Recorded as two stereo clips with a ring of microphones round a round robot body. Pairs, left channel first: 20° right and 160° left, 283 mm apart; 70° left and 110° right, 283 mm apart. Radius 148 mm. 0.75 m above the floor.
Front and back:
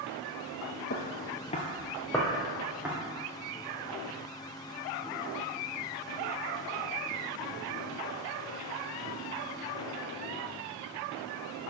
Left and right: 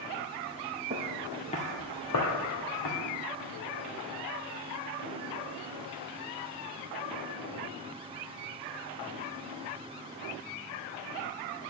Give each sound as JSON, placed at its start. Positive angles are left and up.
{"t": 0.9, "sound": "footsteps", "azimuth_deg": -60, "distance_m": 0.9}